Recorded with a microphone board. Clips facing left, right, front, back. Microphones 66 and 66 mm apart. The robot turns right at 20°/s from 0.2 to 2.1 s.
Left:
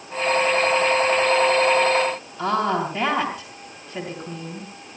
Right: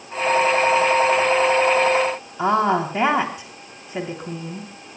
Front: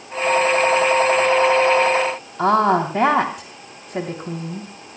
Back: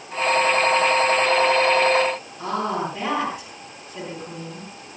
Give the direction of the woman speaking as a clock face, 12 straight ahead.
1 o'clock.